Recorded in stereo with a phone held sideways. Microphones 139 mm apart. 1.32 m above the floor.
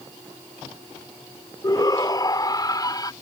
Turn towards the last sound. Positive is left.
turn(degrees=30)  # may be behind; listen again after turning